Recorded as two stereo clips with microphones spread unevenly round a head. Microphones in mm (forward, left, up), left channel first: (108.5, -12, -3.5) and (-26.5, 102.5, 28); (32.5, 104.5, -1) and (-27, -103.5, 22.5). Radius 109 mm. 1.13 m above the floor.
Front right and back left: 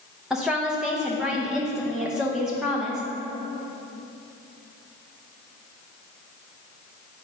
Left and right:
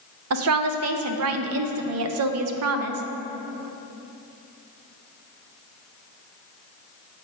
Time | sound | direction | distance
0.3 | a woman speaking | 130° right | 0.6 m